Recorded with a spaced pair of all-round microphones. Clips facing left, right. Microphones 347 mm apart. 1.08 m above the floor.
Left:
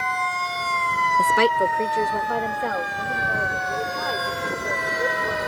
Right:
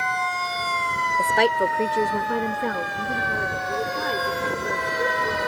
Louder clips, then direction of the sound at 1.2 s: Left 1 dB; 25° left (ahead or behind).